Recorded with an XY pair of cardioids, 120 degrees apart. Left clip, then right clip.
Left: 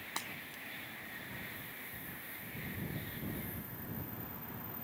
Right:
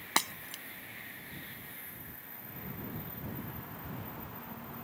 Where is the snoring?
I don't hear snoring.